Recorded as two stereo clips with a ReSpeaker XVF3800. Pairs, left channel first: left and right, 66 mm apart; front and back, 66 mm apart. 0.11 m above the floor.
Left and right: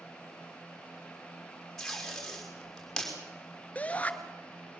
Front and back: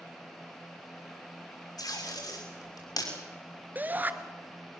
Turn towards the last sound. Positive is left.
turn(degrees=140)